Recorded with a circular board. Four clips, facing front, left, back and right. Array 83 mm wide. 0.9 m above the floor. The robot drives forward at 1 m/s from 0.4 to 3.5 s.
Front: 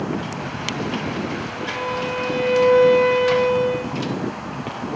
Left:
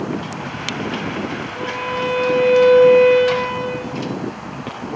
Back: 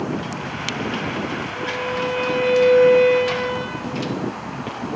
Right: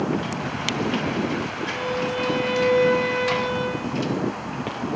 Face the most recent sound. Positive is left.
turn(degrees=115)